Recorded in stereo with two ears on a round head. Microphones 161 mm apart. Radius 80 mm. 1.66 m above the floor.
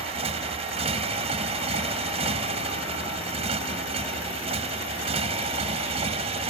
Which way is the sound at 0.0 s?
35° right (ahead or behind).